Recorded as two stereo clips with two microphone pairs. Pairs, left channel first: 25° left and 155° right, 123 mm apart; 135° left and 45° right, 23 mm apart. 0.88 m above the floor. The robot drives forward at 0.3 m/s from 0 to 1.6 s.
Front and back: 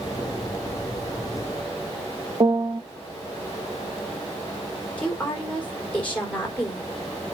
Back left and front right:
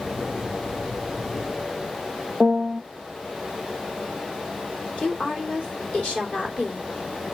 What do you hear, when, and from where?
2.4 s a piano: 105° right, 0.5 m
5.0 s a woman speaking: 105° left, 3 m